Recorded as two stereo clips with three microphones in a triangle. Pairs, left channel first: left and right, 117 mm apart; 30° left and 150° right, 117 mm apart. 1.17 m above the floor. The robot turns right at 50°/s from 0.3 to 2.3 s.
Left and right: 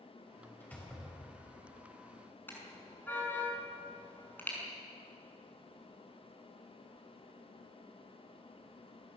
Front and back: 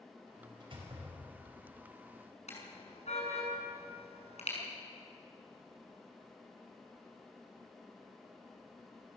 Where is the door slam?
160° left, 5 m; by 1.6 s 150° right, 5 m.